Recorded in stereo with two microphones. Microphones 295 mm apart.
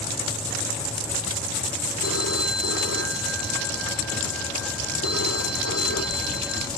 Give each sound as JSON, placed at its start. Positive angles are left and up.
{"t": 2.0, "sound": "a phone ringing", "side_deg": 55}